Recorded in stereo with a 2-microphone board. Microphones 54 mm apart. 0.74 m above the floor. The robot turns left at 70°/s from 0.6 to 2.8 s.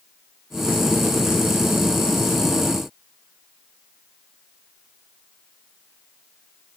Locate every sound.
Only background noise.